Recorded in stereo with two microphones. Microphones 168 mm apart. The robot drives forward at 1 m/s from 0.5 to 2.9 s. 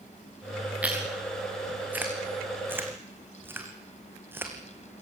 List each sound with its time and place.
0.8 s chewing: 10° right (ahead or behind), 6 m